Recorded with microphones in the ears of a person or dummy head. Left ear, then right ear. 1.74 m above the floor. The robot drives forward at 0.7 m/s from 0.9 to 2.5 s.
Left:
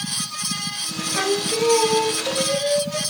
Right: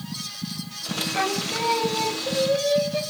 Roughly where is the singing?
Centre.